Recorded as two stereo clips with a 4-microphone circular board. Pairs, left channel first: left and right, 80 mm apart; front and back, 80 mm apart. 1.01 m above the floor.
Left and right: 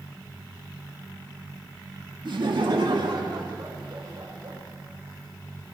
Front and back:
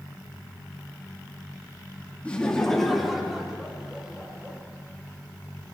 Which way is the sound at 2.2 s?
75° right.